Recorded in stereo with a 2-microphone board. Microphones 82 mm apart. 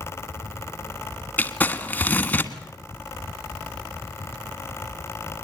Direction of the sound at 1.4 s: 20° left (ahead or behind).